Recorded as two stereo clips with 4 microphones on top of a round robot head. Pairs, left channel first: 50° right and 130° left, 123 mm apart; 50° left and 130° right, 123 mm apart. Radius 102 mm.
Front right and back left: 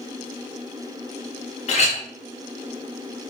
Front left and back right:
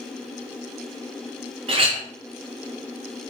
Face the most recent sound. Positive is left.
turn(degrees=-85)